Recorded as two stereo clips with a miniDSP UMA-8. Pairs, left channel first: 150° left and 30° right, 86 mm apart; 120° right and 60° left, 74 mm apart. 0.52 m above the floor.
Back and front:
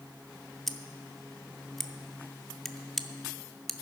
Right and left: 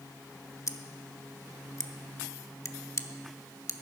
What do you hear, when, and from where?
0.7 s scissors: 120° right, 0.6 m